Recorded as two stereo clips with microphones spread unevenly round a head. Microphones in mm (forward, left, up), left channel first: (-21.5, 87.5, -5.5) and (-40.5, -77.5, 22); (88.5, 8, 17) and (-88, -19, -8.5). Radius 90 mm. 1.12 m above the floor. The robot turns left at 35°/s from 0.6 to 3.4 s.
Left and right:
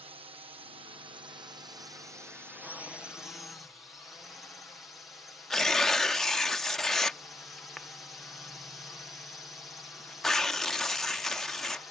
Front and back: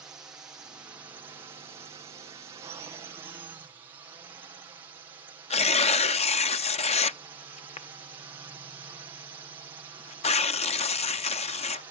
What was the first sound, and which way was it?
A drone, 110° right.